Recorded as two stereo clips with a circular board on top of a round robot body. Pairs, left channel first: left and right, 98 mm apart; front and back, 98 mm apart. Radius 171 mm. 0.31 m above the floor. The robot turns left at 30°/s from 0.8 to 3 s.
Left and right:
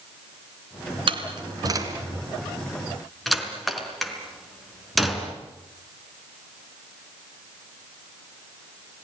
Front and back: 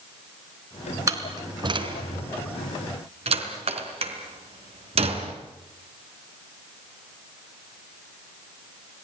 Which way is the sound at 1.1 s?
120° right.